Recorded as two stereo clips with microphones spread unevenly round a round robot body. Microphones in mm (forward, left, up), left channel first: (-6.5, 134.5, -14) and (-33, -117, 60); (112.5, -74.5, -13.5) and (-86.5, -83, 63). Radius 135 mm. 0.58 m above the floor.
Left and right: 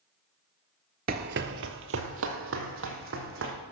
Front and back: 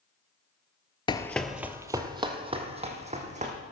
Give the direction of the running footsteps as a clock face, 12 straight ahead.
3 o'clock.